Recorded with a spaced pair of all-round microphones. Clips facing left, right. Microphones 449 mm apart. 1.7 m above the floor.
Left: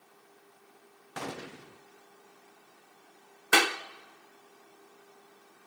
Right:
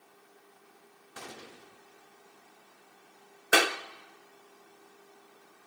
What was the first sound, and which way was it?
A gunshot, 80° left.